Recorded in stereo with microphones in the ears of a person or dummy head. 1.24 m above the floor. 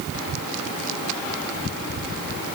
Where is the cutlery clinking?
I don't hear cutlery clinking.